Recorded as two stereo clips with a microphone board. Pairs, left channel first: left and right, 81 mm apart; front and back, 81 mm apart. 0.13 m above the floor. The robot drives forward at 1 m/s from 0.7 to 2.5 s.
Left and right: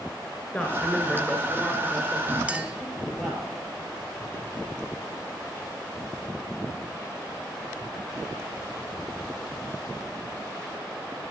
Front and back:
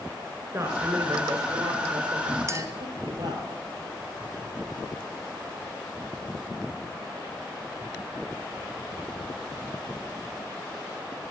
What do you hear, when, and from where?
0.5 s a woman speaking: 155° left, 1.9 m; by 3.5 s 170° left, 3.5 m
2.5 s a clink: 155° right, 0.8 m